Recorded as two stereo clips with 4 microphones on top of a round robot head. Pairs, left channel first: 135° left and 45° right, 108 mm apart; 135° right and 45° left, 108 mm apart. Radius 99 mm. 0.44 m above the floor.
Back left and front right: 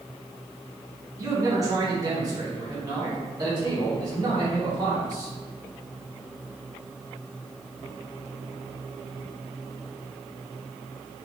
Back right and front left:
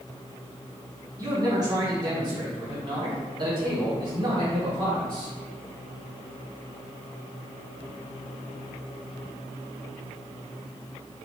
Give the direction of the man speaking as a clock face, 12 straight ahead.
12 o'clock.